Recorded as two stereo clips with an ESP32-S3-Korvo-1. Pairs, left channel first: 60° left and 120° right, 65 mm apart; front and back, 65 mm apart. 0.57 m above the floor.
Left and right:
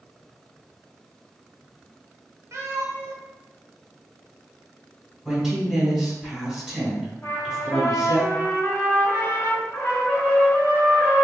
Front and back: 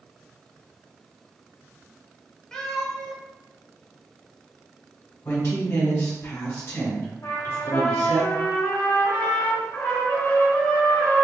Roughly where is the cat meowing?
Right.